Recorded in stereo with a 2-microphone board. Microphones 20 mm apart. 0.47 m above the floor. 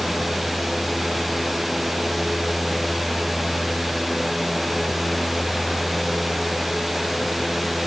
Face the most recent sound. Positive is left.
No sound to turn to.